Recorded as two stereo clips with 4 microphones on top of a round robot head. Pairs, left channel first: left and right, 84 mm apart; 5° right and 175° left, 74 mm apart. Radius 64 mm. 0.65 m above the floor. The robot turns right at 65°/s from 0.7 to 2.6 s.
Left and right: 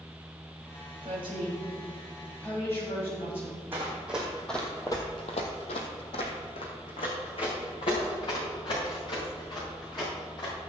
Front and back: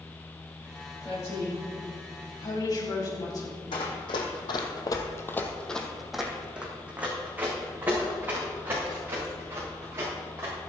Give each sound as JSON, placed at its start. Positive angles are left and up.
{"t": 1.0, "sound": "a woman speaking", "azimuth_deg": -80, "distance_m": 4.0}
{"t": 3.7, "sound": "running footsteps", "azimuth_deg": -20, "distance_m": 2.5}